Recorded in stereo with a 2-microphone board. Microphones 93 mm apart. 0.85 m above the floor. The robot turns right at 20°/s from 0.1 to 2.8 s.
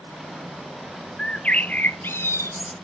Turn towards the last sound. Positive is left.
turn(degrees=40)